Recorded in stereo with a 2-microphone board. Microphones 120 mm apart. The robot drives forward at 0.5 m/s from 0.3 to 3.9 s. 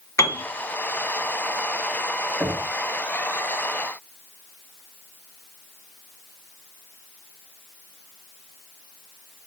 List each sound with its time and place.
0.2 s a piano: 25° left (ahead or behind), 2.5 m
2.4 s knocking: 10° right (ahead or behind), 1.3 m